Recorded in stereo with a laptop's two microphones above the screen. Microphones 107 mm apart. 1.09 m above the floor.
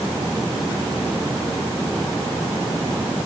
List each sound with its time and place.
Only background noise.